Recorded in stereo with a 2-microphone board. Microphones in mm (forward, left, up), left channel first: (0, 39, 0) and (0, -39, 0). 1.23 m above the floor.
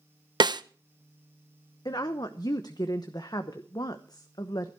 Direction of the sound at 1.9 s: 55° left (ahead or behind).